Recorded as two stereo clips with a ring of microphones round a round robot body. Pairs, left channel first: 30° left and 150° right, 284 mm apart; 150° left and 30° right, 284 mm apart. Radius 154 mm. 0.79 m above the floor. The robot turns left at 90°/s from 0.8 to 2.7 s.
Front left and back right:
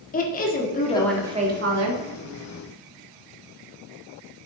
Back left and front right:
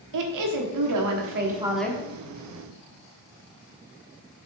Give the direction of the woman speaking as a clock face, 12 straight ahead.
1 o'clock.